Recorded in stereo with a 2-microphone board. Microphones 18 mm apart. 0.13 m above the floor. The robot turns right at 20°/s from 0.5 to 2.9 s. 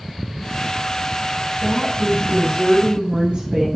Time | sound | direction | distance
1.6 | a woman speaking | 65° right (ahead or behind) | 4.5 m